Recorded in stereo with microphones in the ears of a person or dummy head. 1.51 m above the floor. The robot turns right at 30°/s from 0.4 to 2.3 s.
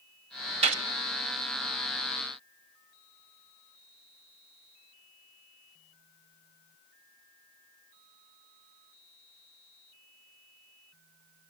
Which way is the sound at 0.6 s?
40° right (ahead or behind).